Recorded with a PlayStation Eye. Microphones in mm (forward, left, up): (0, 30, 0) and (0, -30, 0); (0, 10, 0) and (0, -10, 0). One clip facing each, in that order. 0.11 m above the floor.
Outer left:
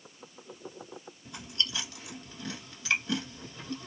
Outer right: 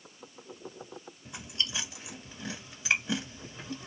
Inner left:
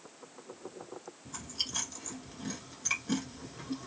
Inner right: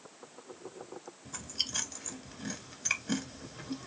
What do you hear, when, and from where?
1.2 s chewing: 15° right (ahead or behind), 1.5 m